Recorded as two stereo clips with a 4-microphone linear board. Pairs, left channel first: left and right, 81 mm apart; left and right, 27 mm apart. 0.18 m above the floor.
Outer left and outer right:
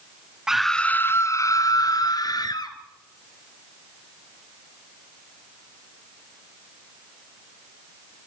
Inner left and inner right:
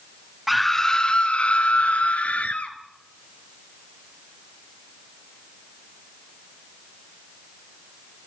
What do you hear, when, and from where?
0.5 s a scream: 5° right (ahead or behind), 1.2 m; by 2.8 s 55° left (ahead or behind), 3.5 m